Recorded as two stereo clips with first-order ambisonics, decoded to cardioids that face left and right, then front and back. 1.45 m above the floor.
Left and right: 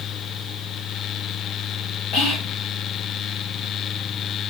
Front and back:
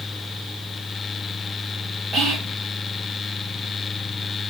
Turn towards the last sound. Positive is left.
turn(degrees=115)